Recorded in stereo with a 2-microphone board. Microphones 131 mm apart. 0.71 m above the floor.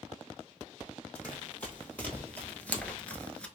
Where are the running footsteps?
10° left (ahead or behind), 1.7 m; by 3.5 s 5° left (ahead or behind), 0.6 m.